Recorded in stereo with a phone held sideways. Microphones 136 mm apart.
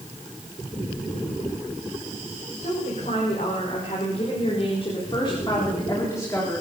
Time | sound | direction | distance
2.6 | a woman speaking | 65° left (ahead or behind) | 5.5 m